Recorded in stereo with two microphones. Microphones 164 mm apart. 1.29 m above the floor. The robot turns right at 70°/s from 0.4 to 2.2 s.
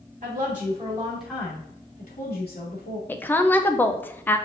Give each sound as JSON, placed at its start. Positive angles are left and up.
{"t": 0.2, "sound": "a woman speaking", "azimuth_deg": -60, "distance_m": 2.5}
{"t": 3.1, "sound": "a woman speaking", "side_deg": 10, "distance_m": 0.5}